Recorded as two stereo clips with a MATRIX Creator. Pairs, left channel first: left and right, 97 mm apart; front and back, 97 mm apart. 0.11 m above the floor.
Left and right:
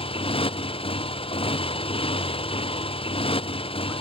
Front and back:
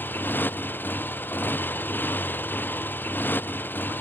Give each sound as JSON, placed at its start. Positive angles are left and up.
{"t": 0.0, "sound": "a motorcycle", "azimuth_deg": 70}